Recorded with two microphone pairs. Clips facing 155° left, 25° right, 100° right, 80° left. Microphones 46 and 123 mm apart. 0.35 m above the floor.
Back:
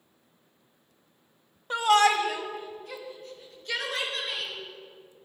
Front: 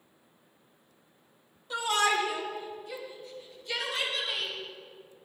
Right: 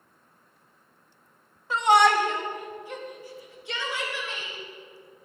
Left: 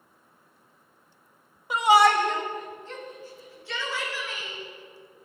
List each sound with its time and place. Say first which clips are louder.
1.7 s a shout: back 6 dB, left 1 dB; 150° left, 1.2 m; by 4.5 s 170° right, 5.5 m